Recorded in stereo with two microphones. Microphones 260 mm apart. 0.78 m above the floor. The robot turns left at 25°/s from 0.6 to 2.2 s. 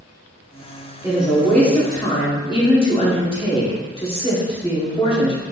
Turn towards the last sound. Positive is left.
turn(degrees=20)  # may be behind; listen again after turning